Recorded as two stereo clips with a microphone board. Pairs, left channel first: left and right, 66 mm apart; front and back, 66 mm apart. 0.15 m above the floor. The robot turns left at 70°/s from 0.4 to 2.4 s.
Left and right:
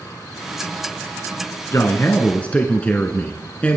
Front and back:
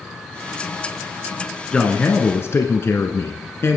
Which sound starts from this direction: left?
A man speaking, at 1.7 s.